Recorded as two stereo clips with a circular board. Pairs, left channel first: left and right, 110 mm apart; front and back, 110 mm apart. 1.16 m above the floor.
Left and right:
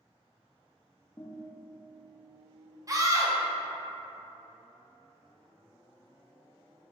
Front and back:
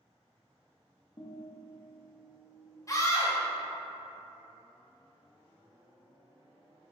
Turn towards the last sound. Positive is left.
turn(degrees=-45)